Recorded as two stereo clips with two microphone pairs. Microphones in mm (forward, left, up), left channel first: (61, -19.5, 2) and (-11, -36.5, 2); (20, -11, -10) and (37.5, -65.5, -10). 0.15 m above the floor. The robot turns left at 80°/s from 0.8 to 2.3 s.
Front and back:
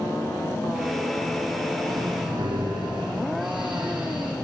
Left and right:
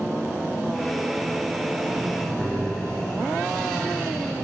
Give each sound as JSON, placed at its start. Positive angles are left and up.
{"t": 1.8, "sound": "breathing", "azimuth_deg": -125, "distance_m": 5.0}